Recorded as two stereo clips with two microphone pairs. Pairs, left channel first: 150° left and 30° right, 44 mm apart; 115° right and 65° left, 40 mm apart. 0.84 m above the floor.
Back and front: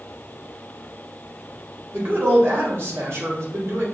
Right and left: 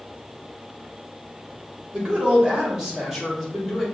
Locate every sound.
1.9 s a woman speaking: 5° left, 1.8 m; by 3.8 s 30° right, 1.9 m